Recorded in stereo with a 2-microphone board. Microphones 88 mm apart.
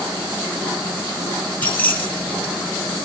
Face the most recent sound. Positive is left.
turn(degrees=20)  # may be behind; listen again after turning